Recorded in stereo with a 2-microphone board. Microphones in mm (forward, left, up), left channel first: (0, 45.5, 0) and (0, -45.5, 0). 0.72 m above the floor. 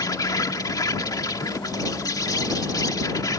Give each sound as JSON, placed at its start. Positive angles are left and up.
{"t": 0.0, "sound": "an insect", "side_deg": 45}